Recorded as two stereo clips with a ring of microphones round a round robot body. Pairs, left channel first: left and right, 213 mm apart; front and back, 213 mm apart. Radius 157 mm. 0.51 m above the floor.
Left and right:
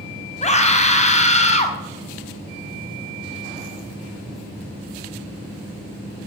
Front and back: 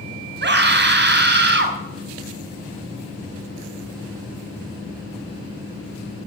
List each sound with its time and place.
0.4 s a scream: 145° left, 4.5 m